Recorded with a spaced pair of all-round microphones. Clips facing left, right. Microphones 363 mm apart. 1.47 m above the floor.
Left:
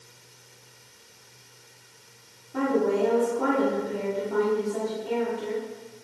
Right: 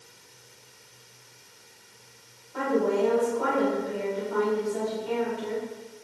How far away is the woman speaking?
About 1.5 m.